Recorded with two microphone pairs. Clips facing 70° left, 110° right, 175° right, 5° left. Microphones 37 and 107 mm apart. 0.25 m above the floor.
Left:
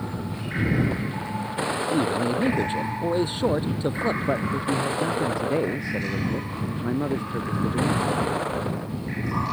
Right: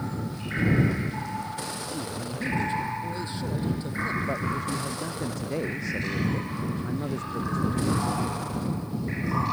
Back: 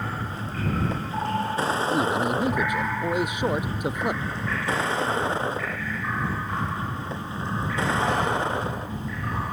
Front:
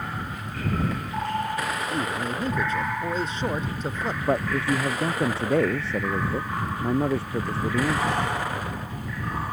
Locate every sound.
0.0 s a vehicle: 125° left; by 9.5 s 120° left
1.9 s a man speaking: 110° left
4.2 s a man speaking: straight ahead